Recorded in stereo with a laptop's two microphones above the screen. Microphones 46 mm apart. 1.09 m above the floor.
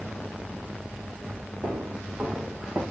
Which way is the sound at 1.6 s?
60° right (ahead or behind).